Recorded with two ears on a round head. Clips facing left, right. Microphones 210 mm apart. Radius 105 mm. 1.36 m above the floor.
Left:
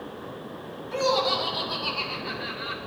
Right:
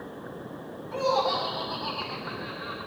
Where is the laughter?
45° left (ahead or behind), 3.5 m.